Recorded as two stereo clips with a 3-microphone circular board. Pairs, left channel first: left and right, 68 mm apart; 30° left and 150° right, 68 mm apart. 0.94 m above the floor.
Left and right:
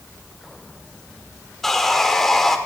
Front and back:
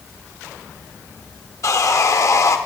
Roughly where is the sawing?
Ahead.